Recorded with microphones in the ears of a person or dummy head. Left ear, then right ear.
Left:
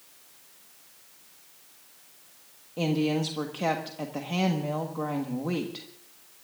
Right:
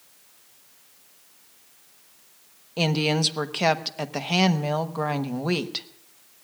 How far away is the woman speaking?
About 1.2 m.